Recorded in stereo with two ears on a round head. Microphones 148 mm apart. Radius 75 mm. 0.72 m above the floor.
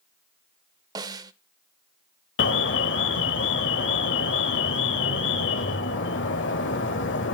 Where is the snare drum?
25° right (ahead or behind), 0.9 m.